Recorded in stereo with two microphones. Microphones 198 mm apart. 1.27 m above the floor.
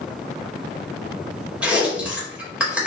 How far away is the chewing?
About 4.5 m.